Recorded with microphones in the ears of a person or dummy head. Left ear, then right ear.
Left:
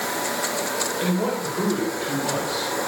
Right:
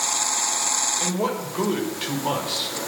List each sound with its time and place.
1.0 s a man speaking: 25° right (ahead or behind), 5.5 m; by 2.7 s 20° right (ahead or behind), 4 m